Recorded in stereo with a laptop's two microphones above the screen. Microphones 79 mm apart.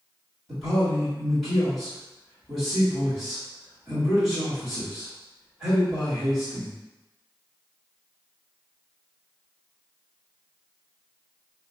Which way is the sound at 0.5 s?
5° right (ahead or behind).